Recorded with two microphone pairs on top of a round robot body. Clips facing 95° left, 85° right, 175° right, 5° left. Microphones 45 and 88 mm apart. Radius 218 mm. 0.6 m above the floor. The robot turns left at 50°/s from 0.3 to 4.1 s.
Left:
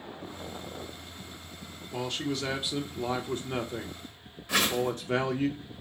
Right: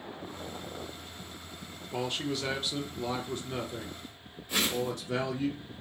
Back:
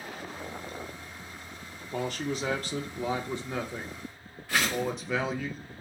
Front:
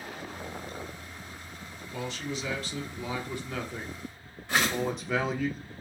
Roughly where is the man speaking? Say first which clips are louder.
Even, back 4 dB; behind.